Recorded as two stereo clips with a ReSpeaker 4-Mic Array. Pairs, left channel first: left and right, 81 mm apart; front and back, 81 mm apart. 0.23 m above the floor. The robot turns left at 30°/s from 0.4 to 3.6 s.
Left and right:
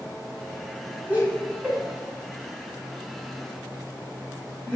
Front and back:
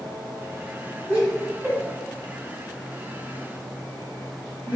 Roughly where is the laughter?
Behind right.